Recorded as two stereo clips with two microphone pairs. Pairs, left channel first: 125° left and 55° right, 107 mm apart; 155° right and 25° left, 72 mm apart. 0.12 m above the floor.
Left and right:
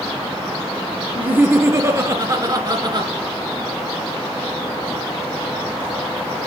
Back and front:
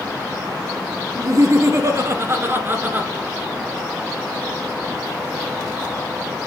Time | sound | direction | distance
1.1 | laughter | 15° left | 2.5 m